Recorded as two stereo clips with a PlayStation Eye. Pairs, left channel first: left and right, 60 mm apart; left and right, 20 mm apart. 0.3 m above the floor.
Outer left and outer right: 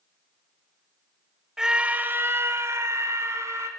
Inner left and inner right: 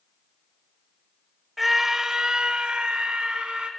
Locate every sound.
1.6 s a scream: 10° right (ahead or behind), 1.3 m; by 3.7 s 50° right (ahead or behind), 3 m